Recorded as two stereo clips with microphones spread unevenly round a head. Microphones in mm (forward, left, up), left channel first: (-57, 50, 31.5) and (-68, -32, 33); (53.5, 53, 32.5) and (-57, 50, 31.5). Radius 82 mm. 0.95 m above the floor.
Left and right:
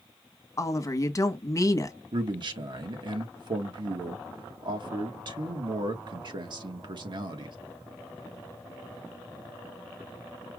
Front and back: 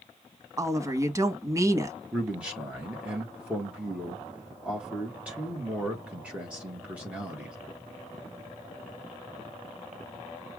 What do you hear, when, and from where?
0.6 s a woman speaking: 125° left, 1.3 m
2.1 s a man speaking: 100° right, 1.6 m